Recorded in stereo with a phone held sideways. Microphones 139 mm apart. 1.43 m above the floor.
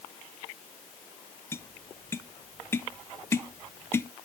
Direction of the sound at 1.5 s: 15° left (ahead or behind).